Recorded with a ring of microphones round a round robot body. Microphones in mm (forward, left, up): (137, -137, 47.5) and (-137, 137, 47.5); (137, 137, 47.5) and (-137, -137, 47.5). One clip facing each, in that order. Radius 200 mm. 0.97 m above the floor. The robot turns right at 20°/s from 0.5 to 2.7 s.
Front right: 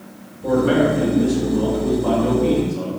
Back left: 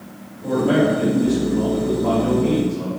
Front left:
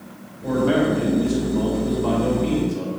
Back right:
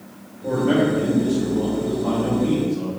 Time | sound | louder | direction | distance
0.4 | a man speaking | front right 1 dB, even | 5° right | 3.5 m